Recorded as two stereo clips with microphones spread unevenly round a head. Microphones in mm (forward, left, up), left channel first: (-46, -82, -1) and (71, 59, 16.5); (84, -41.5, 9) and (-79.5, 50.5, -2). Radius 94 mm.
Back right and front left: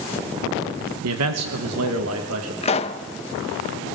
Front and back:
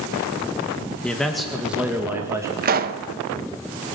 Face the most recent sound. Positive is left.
turn(degrees=175)